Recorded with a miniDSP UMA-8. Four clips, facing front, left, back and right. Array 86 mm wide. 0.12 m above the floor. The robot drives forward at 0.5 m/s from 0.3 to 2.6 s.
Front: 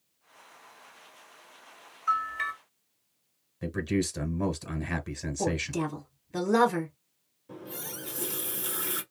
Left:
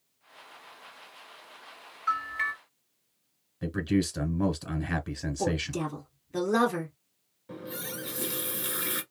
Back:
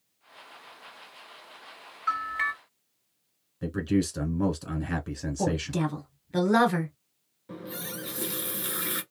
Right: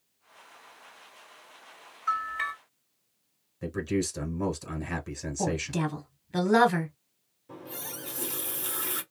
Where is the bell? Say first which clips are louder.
Even, even; 165° left, 2 m.